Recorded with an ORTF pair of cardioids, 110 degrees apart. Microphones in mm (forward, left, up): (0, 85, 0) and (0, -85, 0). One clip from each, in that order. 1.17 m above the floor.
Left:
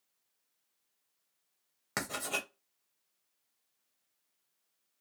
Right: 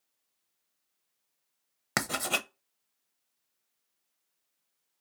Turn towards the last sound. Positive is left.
turn(degrees=-40)